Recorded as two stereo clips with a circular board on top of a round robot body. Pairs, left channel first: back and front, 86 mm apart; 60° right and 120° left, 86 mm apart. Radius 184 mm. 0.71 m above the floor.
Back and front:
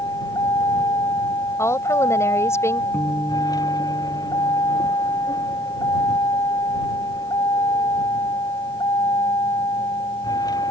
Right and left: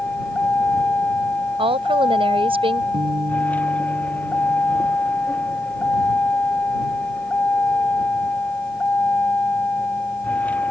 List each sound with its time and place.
0.0 s a vehicle: 135° right
1.6 s a woman speaking: 120° left
2.9 s a guitar: 105° left